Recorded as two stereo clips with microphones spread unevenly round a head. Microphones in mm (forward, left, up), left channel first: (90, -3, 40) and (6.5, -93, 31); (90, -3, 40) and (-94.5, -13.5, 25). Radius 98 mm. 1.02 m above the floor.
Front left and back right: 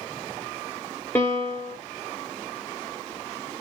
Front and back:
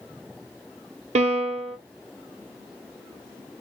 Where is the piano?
125° left, 1.0 m.